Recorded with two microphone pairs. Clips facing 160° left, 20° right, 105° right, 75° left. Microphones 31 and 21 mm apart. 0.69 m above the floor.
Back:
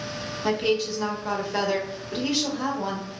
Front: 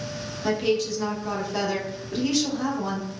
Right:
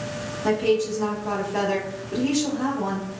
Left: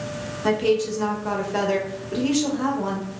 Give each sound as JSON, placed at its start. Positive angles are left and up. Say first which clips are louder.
{"t": 0.4, "sound": "a woman speaking", "louder": "even, left 1 dB", "azimuth_deg": 95, "distance_m": 0.8}